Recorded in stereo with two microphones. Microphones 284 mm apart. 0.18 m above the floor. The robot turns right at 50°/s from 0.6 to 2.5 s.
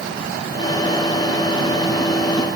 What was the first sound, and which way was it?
Only background noise.